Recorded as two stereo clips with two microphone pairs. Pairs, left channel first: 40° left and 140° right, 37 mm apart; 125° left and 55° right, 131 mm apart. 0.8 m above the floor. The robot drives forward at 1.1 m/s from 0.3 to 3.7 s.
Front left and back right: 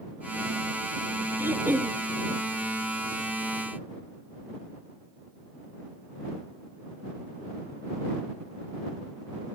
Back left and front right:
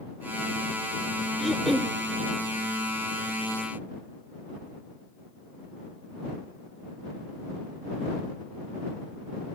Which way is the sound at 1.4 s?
145° right.